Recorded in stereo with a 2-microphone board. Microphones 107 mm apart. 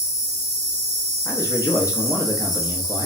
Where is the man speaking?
30° left (ahead or behind), 0.8 m.